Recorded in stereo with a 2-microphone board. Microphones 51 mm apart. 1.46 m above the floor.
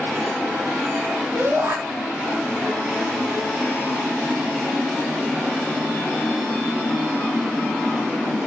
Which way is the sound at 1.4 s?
55° right (ahead or behind).